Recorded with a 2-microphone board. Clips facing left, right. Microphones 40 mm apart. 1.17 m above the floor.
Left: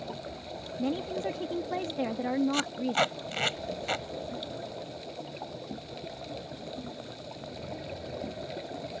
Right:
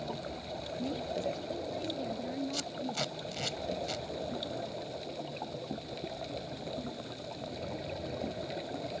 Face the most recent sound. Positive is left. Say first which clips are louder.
# left 8 dB
turn(degrees=50)  # may be behind; listen again after turning